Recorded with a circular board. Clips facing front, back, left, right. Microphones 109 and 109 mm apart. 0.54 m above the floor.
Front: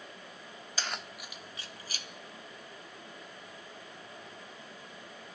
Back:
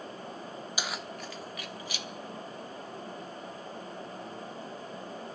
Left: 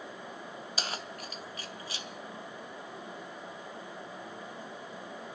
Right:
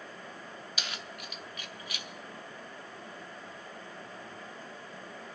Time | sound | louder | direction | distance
0.8 | keys jangling | back 1 dB, left 5 dB | 110° left | 0.7 m